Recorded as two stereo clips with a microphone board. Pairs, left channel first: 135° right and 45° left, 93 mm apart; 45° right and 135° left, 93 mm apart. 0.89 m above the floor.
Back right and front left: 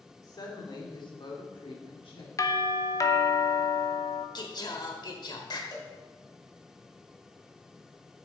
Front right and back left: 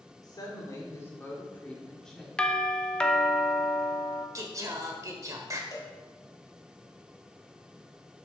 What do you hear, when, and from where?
0.2 s a woman speaking: 90° right, 2.5 m; by 2.3 s 135° right, 2 m
2.4 s a doorbell: 120° right, 0.8 m
4.3 s singing: 175° right, 1.3 m
5.7 s a cowbell: 90° right, 1.9 m